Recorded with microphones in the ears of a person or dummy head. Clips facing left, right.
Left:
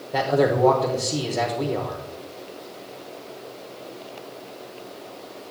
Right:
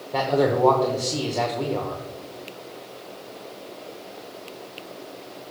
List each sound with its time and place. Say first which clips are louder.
0.1 s a man speaking: left 1 dB; 10° left (ahead or behind), 0.8 m